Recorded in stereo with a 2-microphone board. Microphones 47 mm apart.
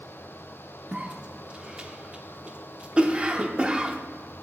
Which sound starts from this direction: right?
A cough, at 0.9 s.